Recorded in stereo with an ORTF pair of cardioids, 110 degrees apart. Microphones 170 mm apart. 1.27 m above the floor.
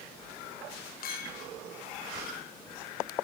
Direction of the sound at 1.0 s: 60° left.